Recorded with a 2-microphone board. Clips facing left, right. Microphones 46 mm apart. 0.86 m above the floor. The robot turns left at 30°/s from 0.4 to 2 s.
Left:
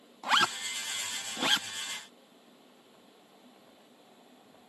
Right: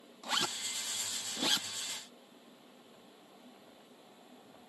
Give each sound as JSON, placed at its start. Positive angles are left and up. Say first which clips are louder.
{"t": 0.2, "sound": "a zipper", "louder": "left 9 dB", "side_deg": 75}